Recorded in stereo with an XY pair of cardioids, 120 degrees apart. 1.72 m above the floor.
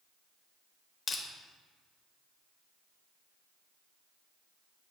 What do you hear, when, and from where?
1.1 s crushing: 35° left, 1.0 m